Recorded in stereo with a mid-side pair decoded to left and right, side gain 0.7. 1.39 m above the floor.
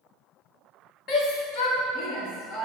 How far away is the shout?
About 2 m.